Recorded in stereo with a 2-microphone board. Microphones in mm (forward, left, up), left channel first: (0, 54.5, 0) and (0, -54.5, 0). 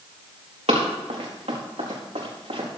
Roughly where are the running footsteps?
Right.